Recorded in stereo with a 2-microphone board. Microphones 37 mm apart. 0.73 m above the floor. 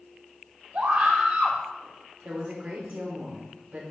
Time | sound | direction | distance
0.7 | a scream | 65° right (ahead or behind) | 2 m
2.2 | a woman speaking | 55° right (ahead or behind) | 2.5 m